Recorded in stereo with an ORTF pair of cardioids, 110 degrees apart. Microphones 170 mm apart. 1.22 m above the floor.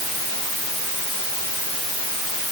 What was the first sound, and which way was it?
Only background noise.